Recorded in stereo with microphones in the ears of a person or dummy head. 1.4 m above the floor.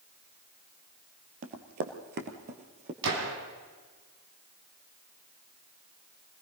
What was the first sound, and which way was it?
Running footsteps, 50° right (ahead or behind).